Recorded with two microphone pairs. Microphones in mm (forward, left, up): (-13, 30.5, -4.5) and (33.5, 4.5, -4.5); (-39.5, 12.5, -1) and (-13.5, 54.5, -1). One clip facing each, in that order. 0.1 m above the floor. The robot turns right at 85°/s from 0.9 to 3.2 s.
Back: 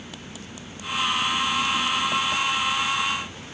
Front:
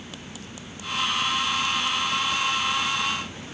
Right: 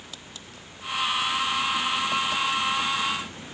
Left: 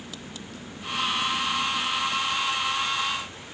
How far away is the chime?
I don't hear a chime.